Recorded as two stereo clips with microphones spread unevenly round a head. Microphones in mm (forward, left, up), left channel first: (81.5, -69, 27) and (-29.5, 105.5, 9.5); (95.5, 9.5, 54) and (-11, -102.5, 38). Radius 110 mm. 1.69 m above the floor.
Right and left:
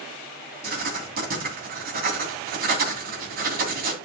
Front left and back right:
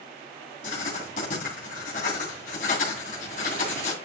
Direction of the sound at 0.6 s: 85° left.